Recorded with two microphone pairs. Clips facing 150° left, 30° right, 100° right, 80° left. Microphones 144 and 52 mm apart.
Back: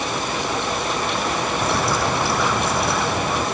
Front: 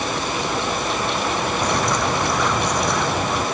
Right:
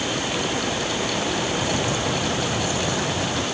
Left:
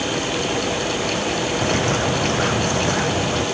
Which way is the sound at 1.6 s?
60° left.